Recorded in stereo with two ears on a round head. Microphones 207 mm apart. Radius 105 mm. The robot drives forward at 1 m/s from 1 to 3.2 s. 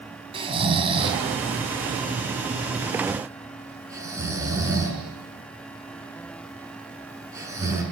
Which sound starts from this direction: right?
Snoring, at 0.3 s.